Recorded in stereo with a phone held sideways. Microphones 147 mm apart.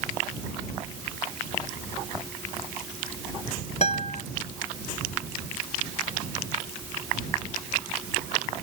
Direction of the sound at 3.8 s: 50° left (ahead or behind).